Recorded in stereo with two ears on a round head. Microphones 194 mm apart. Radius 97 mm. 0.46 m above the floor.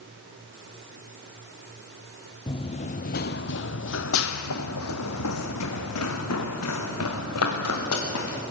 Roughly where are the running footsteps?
Left.